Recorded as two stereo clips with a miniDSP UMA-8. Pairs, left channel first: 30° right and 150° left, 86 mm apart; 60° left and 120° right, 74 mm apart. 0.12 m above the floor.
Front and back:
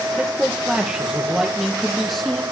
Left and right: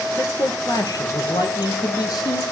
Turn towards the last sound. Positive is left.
turn(degrees=60)